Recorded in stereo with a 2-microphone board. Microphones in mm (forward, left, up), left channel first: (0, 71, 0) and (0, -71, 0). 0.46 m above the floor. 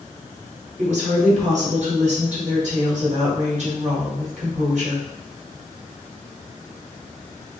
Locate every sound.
0.8 s a woman speaking: 55° right (ahead or behind), 1.4 m